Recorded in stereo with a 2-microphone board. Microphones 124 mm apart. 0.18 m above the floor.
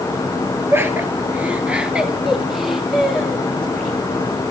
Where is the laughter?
20° right (ahead or behind), 3 m; by 4.0 s 5° left (ahead or behind), 4.5 m.